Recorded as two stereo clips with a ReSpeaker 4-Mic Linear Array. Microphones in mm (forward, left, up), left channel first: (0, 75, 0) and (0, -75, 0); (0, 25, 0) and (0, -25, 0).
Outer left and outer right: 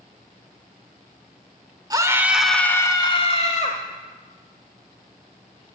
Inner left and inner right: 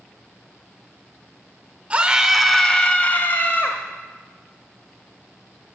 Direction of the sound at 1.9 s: 25° right (ahead or behind).